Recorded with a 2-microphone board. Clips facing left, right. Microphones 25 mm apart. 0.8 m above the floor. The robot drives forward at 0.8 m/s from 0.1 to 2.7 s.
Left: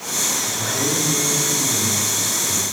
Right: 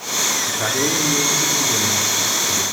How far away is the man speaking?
About 2 m.